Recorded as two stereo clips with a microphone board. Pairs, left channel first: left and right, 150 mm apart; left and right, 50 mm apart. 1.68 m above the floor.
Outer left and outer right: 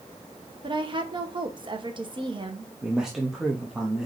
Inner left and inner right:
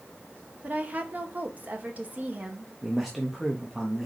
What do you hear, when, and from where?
0.6 s a woman speaking: 35° right (ahead or behind), 0.9 m
2.8 s a man speaking: centre (ahead or behind), 0.7 m